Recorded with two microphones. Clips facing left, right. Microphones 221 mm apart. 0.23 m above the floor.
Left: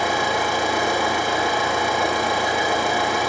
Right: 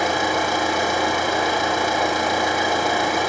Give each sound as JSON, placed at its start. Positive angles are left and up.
{"t": 0.0, "sound": "an engine running", "side_deg": -40, "distance_m": 3.5}